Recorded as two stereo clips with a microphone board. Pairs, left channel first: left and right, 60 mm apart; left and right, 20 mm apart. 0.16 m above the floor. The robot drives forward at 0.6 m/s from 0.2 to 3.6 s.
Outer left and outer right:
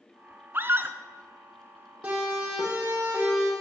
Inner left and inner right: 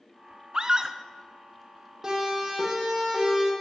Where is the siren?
20° right (ahead or behind), 7.5 m; by 3.5 s 15° right (ahead or behind), 8.5 m.